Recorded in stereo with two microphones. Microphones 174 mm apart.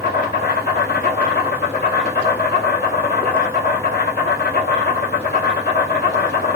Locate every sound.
0.0 s an insect: 60° left (ahead or behind), 1.1 m